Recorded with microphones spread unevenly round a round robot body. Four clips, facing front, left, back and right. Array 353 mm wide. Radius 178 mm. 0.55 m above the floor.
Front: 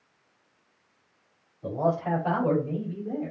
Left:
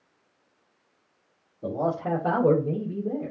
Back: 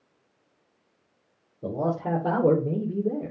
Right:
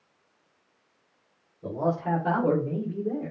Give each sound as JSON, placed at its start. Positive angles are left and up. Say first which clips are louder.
{"t": 1.6, "sound": "a man speaking", "louder": "even, front 1 dB", "azimuth_deg": 145, "distance_m": 2.5}